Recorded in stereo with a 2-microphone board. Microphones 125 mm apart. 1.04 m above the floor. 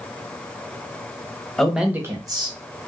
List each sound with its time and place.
1.6 s a man speaking: 5° left (ahead or behind), 0.8 m; by 2.9 s 50° right (ahead or behind), 1.2 m